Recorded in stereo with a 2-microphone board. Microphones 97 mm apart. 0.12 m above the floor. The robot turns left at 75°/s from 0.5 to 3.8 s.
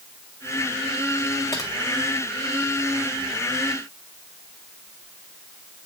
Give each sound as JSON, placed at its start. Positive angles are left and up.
{"t": 1.5, "sound": "typing on a keyboard", "side_deg": 30, "distance_m": 2.0}